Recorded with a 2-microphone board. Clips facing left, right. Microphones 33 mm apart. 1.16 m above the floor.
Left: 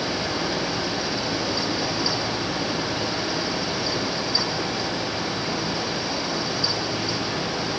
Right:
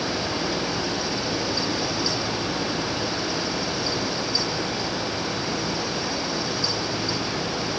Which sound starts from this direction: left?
Running water, at 0.0 s.